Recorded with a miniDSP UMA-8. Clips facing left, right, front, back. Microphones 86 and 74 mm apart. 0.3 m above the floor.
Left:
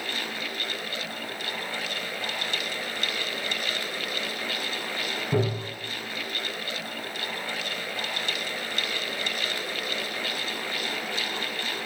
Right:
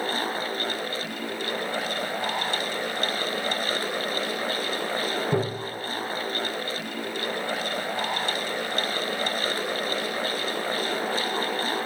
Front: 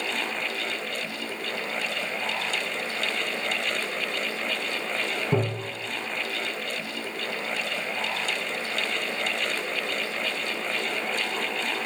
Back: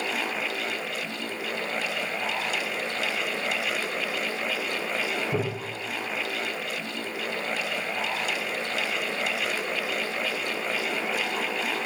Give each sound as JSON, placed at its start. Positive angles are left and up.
{"t": 5.3, "sound": "tapping", "azimuth_deg": -25, "distance_m": 3.0}